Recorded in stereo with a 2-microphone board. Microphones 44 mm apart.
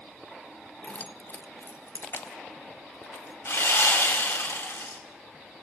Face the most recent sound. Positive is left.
turn(degrees=70)  # may be behind; listen again after turning